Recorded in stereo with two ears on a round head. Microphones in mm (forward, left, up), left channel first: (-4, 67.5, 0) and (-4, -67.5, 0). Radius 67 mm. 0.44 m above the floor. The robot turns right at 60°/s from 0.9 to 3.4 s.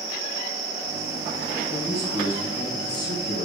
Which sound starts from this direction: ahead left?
A man speaking, at 1.7 s.